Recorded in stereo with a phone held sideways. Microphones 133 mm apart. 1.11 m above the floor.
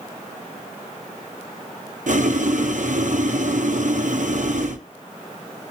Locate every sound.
2.1 s boiling: 65° right (ahead or behind), 0.7 m